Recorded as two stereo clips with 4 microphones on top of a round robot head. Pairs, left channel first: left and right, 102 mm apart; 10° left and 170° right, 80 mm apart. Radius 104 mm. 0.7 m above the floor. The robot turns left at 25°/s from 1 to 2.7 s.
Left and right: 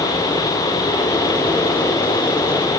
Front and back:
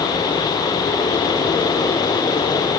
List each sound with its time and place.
Only background noise.